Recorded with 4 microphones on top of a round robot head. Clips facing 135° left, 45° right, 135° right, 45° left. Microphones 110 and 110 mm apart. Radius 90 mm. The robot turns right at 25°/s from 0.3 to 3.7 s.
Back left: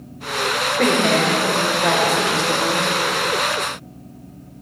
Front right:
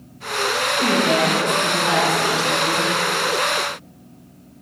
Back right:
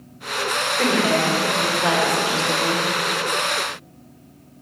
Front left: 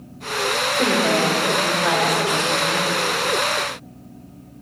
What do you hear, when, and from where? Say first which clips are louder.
0.8 s a woman speaking: back left 1 dB, even; 125° left, 3 m; by 2.9 s 175° left, 3 m